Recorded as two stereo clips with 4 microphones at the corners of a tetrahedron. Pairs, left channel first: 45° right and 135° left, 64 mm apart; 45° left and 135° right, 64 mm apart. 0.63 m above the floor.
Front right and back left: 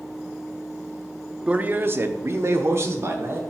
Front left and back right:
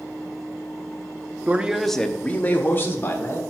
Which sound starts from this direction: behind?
A man speaking, at 1.5 s.